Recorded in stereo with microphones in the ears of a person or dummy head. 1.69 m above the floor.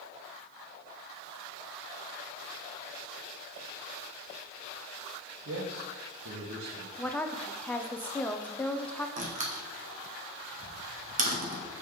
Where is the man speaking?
75° right (ahead or behind), 2 m.